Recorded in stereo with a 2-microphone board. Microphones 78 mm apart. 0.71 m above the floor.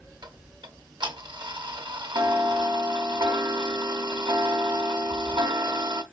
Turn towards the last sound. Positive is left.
turn(degrees=-80)